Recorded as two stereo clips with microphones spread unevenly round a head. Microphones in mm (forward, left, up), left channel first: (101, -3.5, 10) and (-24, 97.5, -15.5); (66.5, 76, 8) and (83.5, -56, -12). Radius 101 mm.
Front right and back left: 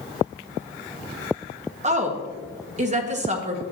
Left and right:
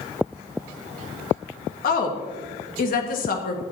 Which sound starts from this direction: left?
A woman speaking, at 1.8 s.